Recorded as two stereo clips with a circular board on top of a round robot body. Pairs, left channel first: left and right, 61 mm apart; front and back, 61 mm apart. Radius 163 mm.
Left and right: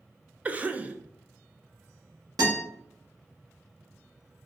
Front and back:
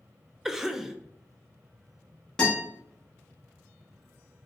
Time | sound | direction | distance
0.5 | a cough | 105° right | 0.5 m
2.4 | a guitar | 80° right | 0.8 m